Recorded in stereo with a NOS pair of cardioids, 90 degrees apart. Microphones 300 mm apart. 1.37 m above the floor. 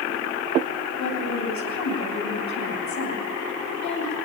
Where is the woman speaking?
65° left, 9 m.